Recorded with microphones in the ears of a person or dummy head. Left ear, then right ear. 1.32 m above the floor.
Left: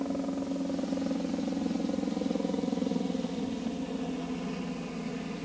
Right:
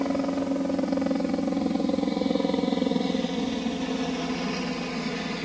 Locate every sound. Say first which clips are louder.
0.0 s a helicopter: right 7 dB; 60° right (ahead or behind)